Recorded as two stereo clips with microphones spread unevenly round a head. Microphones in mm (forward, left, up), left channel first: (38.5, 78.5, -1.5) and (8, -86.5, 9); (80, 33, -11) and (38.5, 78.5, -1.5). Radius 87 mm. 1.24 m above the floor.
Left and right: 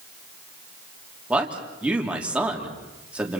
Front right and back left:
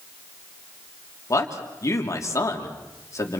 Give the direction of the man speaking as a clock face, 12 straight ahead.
1 o'clock.